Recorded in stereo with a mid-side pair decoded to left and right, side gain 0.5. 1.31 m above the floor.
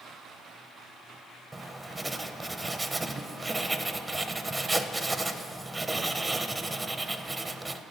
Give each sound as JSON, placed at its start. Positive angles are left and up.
{"t": 1.5, "sound": "writing", "azimuth_deg": -20, "distance_m": 0.6}